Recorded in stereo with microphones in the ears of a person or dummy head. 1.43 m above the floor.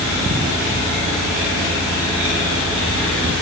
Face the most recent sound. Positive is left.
No sound to turn to.